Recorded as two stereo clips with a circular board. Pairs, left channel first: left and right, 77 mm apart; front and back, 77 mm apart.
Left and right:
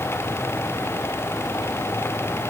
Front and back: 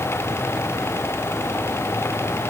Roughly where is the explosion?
No explosion in this recording.